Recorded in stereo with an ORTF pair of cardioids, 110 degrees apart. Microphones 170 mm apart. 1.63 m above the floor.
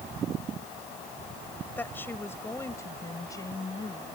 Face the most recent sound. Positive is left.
turn(degrees=25)